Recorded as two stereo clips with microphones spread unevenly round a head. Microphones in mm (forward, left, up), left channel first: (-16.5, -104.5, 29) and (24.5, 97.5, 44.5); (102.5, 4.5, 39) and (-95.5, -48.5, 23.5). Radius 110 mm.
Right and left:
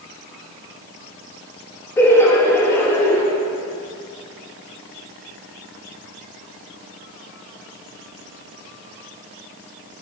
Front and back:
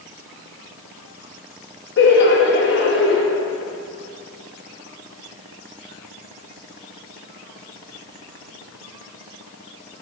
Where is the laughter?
25° right, 1.1 m.